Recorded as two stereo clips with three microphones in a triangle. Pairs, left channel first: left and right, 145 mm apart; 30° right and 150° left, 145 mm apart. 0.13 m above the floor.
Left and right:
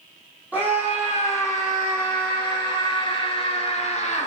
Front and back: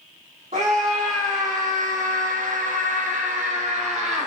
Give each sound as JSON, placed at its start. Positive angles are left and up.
{"t": 0.5, "sound": "a scream", "azimuth_deg": -170, "distance_m": 3.0}